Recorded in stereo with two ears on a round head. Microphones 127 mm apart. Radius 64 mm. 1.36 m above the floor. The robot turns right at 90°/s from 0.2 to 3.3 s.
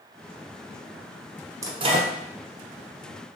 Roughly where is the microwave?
Behind right.